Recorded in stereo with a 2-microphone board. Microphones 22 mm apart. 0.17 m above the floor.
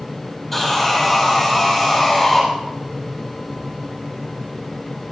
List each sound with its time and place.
0.5 s sawing: 20° left (ahead or behind), 5.5 m